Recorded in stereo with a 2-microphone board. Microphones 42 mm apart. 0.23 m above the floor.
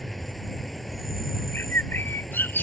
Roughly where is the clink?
I don't hear a clink.